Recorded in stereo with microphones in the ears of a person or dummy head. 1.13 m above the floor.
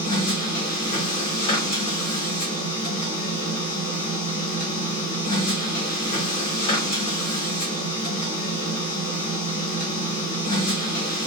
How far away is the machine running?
About 0.8 m.